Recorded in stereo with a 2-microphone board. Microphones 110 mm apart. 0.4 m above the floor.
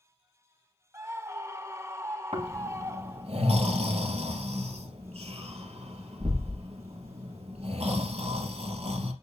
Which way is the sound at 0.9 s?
25° right (ahead or behind).